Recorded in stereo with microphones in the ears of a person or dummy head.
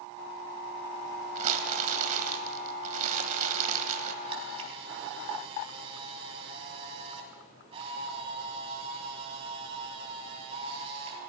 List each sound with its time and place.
1.4 s crumpling: 40° right (ahead or behind), 1.6 m
4.2 s a camera shutter: 35° right (ahead or behind), 4 m